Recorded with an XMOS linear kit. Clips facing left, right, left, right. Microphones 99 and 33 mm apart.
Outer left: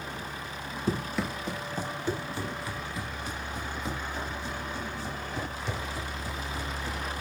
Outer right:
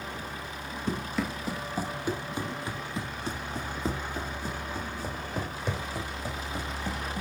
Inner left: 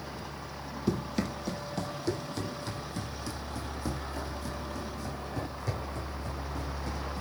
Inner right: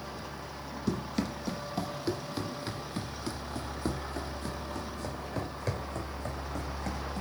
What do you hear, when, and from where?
0.9 s running footsteps: 5° left (ahead or behind), 1.8 m; by 7.2 s 55° right (ahead or behind), 4 m